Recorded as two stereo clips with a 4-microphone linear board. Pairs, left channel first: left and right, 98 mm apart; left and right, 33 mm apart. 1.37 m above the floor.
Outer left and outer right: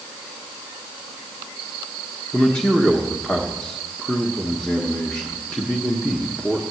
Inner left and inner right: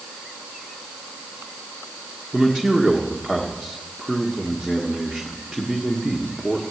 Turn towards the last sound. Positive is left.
turn(degrees=5)  # may be behind; listen again after turning